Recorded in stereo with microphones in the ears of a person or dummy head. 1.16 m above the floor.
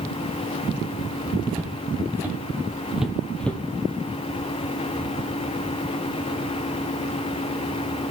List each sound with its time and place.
1.5 s footsteps: 15° right (ahead or behind), 2 m; by 3.6 s 10° left (ahead or behind), 1.2 m